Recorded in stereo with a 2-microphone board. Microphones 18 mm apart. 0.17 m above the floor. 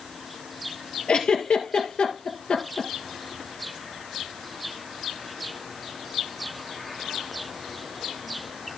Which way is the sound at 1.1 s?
75° left (ahead or behind).